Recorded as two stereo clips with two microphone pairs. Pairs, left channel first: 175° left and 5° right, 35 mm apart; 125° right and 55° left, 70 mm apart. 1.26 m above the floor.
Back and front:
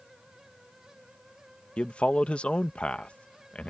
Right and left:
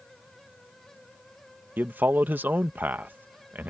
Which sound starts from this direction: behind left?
A man speaking, at 1.8 s.